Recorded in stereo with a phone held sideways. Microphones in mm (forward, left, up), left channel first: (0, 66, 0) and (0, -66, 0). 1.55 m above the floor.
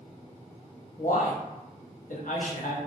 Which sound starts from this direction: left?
A man speaking, at 1.0 s.